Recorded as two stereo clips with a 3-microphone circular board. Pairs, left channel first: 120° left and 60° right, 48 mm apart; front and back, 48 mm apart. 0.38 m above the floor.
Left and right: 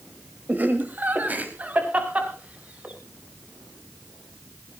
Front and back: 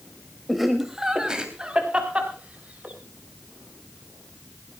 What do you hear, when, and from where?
0.5 s laughter: 90° right, 1.8 m; by 3.0 s 120° right, 3.5 m